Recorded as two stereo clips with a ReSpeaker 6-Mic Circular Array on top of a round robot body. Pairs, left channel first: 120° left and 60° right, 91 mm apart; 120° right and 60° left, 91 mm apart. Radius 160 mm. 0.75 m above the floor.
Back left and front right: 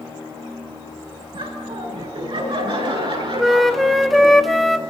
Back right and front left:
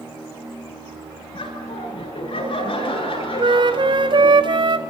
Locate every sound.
1.3 s laughter: 85° right, 9.5 m; by 4.4 s 90° right, 12 m
3.4 s a flute: 30° left, 1.8 m